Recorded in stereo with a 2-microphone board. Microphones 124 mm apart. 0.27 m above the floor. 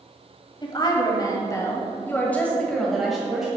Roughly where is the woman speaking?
Left.